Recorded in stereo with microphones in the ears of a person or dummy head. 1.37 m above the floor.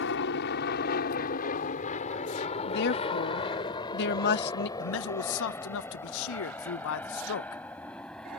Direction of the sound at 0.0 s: 65° left (ahead or behind).